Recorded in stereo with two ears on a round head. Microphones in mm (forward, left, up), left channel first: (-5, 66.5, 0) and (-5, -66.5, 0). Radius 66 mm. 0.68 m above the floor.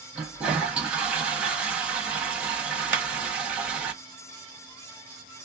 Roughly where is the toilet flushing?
Centre.